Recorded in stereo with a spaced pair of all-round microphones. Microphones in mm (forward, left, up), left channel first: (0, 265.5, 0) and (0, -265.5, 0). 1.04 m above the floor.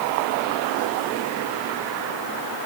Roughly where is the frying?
I don't hear frying.